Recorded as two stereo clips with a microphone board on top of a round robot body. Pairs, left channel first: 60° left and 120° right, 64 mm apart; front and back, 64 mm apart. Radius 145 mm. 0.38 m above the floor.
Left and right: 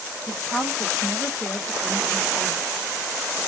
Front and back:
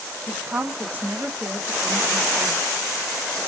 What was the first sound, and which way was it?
A woman speaking, 135° left.